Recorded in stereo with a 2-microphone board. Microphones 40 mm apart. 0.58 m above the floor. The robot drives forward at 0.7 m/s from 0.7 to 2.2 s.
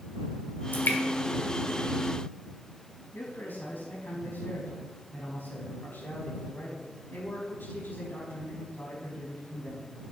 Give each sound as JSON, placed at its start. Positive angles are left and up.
{"t": 0.7, "sound": "dripping", "side_deg": 55, "distance_m": 2.5}
{"t": 3.1, "sound": "a man speaking", "side_deg": 60, "distance_m": 5.0}